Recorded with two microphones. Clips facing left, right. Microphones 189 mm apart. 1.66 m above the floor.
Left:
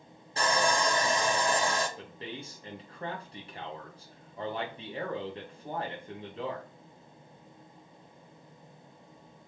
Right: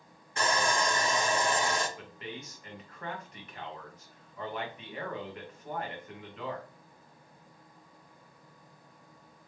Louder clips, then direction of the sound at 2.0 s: Left 1 dB; 30° left (ahead or behind).